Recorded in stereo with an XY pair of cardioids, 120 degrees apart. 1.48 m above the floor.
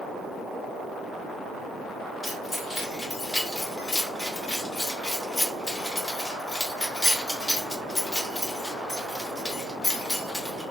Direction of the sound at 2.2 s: 5° left.